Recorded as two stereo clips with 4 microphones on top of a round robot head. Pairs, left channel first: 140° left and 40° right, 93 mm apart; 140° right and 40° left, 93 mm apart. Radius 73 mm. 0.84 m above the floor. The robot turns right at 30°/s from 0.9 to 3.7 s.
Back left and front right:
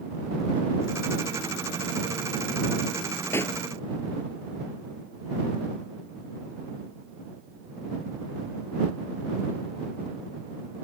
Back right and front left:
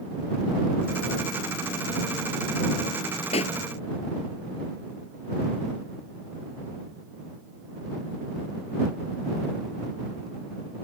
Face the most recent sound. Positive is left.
turn(degrees=-145)